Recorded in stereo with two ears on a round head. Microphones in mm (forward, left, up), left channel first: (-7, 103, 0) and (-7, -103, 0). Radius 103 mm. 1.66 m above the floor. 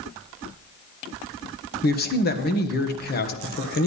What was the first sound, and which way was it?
A man speaking, 40° left (ahead or behind).